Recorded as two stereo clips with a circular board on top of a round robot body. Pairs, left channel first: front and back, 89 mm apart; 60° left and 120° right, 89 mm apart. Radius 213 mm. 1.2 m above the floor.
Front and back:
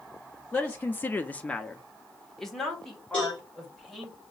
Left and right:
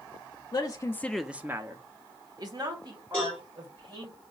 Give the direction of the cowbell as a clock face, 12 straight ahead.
6 o'clock.